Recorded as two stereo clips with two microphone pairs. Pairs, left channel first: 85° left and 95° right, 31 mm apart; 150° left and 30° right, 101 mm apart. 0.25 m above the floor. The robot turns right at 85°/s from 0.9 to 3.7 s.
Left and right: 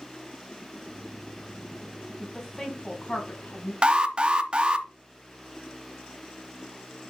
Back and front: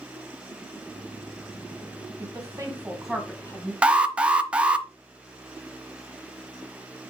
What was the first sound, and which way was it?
A woman speaking, 15° right.